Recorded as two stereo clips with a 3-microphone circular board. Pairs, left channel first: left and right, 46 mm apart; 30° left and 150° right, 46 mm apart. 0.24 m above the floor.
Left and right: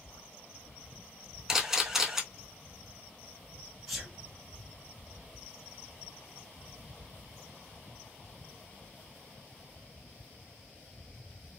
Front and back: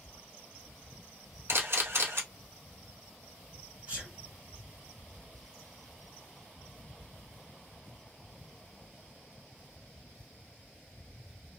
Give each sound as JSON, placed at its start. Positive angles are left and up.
{"t": 1.5, "sound": "a camera shutter", "azimuth_deg": -170, "distance_m": 0.8}
{"t": 3.9, "sound": "a sneeze", "azimuth_deg": 180, "distance_m": 1.8}